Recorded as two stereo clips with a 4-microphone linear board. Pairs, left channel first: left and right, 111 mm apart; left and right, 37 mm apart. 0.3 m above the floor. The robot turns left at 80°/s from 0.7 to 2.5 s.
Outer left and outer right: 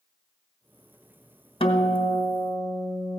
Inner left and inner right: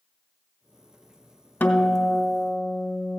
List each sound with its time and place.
1.6 s a guitar: 115° left, 1.4 m; by 3.2 s 40° left, 1.4 m